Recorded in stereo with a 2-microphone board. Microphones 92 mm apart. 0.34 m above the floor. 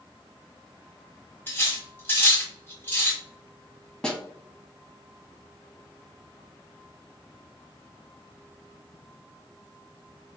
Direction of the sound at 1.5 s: 25° left (ahead or behind).